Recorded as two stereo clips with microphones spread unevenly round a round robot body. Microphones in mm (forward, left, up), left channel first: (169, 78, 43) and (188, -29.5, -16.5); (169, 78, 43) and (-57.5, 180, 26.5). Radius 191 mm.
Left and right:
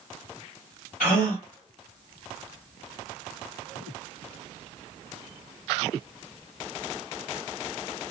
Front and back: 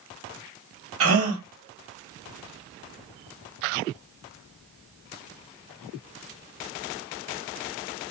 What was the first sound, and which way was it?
A gasp, 130° left.